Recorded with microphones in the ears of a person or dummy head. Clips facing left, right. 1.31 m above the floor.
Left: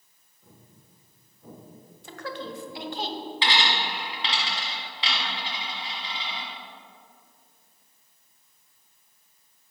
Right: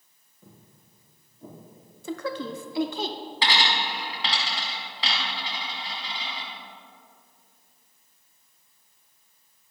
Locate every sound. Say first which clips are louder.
0.4 s footsteps: right 1 dB; 50° right (ahead or behind), 3 m; by 2.5 s 30° right (ahead or behind), 4 m
2.0 s a woman speaking: right 5 dB; 55° right (ahead or behind), 0.6 m
3.4 s a dropped coin: right 1 dB; 45° right (ahead or behind), 1.7 m